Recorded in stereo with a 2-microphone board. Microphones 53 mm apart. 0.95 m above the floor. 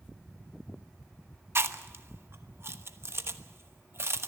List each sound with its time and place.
1.6 s chewing: 50° right (ahead or behind), 1.1 m